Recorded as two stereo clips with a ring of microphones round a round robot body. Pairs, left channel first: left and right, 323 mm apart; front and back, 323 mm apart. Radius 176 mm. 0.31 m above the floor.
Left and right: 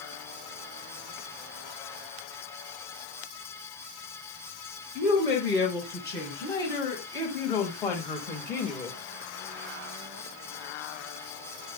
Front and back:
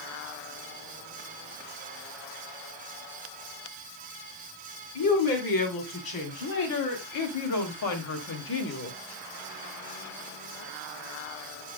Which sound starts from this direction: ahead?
A woman speaking, at 5.0 s.